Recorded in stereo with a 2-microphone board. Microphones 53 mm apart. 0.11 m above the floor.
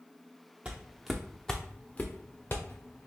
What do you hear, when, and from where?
0.7 s footsteps: 25° right (ahead or behind), 0.8 m; by 3.1 s 55° left (ahead or behind), 1.2 m